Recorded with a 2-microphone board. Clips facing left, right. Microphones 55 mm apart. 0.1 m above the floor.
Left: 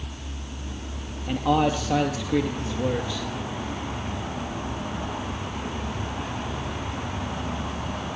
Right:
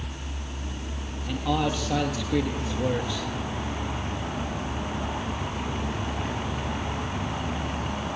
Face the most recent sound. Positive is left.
turn(degrees=-5)  # may be behind; listen again after turning